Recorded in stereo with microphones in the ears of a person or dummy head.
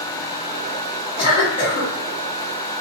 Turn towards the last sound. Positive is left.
turn(degrees=35)  # may be behind; listen again after turning